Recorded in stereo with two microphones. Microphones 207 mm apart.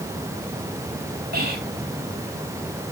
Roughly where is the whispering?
Right.